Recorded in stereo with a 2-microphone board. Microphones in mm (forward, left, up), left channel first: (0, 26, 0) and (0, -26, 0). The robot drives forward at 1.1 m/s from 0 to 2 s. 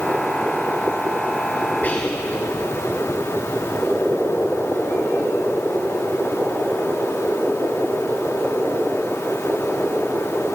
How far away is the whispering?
About 2 m.